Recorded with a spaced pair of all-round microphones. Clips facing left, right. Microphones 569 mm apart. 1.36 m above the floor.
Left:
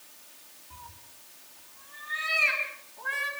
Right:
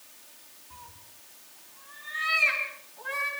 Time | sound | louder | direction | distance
0.7 | a cat meowing | even | 5° left (ahead or behind) | 6 m